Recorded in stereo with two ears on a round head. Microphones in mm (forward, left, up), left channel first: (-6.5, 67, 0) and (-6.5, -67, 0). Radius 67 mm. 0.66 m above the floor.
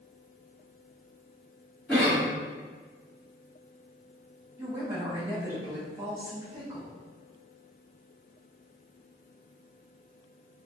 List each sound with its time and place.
1.9 s a cough: centre (ahead or behind), 1.3 m
4.6 s a woman speaking: 15° right (ahead or behind), 0.8 m